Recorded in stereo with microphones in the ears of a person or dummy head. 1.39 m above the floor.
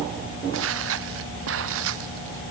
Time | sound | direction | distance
0.5 | footsteps | 85° right | ?